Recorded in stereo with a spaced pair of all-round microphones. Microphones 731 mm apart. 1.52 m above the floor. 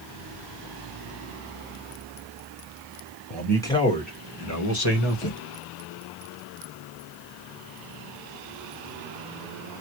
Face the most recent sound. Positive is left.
turn(degrees=50)  # may be behind; listen again after turning